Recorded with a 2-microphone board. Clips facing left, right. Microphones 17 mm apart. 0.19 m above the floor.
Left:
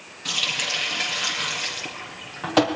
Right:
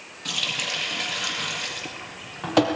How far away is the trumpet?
I don't hear a trumpet.